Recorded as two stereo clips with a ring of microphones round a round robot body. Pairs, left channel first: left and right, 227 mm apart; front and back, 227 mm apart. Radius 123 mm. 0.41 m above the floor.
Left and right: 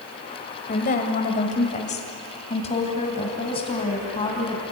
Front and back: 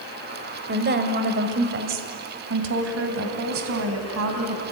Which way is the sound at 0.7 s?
140° left.